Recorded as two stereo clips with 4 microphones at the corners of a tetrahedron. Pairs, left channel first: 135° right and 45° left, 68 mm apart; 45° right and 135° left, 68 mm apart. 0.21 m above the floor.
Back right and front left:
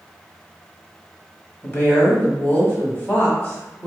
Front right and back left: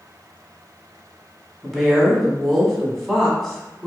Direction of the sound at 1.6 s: 125° right.